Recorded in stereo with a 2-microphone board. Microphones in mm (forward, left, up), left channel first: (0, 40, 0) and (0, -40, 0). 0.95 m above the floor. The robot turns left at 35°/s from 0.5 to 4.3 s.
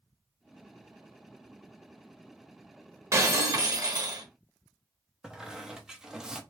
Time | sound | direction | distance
3.1 | breaking glass | 45° right | 1.0 m
5.2 | a squeak | 5° right (ahead or behind) | 0.6 m